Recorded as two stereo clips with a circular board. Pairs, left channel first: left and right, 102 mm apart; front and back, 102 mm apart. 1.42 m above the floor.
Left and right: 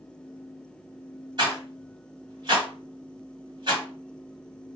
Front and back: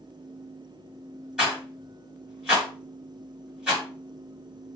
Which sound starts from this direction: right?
A rattle, at 1.4 s.